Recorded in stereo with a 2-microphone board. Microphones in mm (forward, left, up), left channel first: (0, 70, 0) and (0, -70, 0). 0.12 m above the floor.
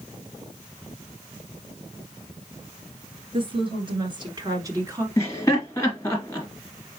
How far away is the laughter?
About 1.8 m.